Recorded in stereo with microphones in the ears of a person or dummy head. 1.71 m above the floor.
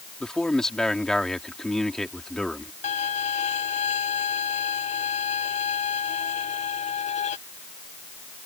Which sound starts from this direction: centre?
A man speaking, at 0.2 s.